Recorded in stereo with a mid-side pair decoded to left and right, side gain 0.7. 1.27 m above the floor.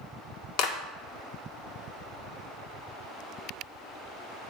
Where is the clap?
65° left, 1.9 m.